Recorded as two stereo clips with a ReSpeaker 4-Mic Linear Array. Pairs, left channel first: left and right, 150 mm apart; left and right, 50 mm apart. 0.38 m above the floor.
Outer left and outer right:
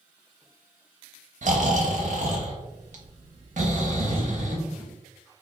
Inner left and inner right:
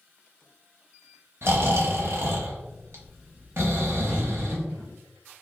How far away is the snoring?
About 0.8 m.